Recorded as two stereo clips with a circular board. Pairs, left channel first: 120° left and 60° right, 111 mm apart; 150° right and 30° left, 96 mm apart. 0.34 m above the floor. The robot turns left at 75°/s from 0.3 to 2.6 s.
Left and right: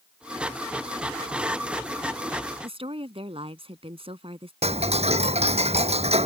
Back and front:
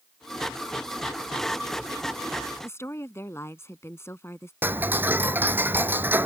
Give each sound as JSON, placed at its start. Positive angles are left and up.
{"t": 2.6, "sound": "a woman speaking", "azimuth_deg": -90}
{"t": 4.6, "sound": "ticking", "azimuth_deg": -40}